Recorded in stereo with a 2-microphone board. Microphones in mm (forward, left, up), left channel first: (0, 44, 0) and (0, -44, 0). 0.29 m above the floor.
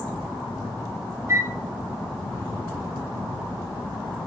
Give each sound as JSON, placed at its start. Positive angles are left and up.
{"t": 1.3, "sound": "a flute", "side_deg": -35, "distance_m": 1.1}